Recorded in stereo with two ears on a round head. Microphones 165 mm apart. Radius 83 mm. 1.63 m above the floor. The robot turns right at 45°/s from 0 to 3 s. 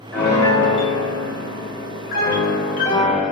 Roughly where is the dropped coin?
No dropped coin in this recording.